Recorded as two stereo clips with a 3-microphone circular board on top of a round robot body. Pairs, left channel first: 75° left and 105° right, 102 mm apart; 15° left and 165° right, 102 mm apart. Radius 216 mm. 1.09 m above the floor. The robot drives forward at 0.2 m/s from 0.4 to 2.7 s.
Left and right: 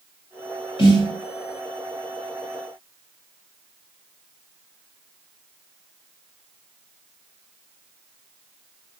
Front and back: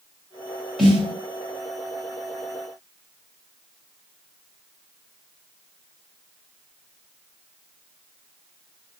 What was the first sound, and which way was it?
A snare drum, 105° left.